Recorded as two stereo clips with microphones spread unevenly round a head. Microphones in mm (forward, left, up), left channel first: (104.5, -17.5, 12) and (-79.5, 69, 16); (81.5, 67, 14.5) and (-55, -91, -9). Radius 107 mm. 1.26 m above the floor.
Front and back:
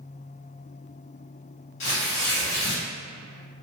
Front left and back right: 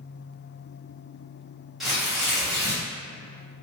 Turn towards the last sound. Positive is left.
turn(degrees=-40)